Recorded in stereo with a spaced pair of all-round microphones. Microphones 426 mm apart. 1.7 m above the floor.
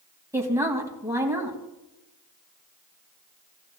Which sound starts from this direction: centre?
A woman speaking, at 0.3 s.